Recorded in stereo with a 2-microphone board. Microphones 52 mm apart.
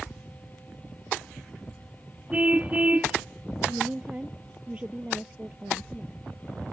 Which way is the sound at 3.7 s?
25° right (ahead or behind).